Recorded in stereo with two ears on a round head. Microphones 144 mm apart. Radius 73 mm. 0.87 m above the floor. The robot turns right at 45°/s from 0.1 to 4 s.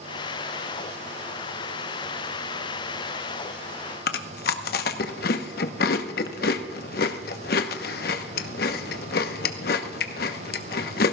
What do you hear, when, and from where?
4.1 s chewing: 60° left (ahead or behind), 1.0 m